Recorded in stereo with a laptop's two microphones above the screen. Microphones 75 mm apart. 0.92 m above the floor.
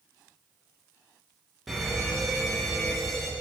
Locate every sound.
1.7 s a fire alarm: centre (ahead or behind), 1.7 m